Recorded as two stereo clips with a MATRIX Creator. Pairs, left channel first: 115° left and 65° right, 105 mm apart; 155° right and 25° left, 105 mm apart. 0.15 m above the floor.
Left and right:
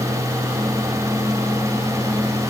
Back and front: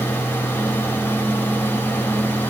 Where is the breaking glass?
No breaking glass in this recording.